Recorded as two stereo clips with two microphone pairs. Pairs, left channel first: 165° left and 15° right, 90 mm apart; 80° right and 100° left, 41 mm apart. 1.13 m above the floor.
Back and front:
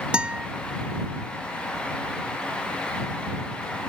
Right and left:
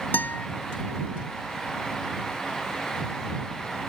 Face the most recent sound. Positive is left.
turn(degrees=-95)